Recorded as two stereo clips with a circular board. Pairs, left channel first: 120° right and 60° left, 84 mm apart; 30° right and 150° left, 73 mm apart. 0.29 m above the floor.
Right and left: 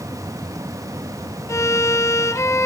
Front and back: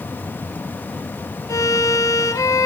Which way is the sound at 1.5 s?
70° right.